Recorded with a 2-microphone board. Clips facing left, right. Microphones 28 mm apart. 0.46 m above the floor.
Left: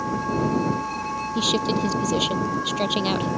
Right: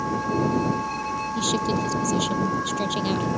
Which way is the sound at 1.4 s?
25° left (ahead or behind).